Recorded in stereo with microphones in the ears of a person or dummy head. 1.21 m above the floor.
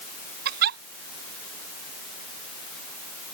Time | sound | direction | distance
0.5 | a giggle | 50° right (ahead or behind) | ?